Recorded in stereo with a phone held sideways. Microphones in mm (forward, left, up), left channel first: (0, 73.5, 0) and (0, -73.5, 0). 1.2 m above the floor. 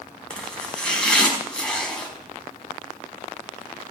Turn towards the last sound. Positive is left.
turn(degrees=5)  # may be behind; listen again after turning